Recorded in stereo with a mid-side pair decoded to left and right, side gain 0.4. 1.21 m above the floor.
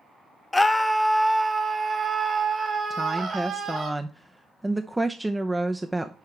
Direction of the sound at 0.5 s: 20° left.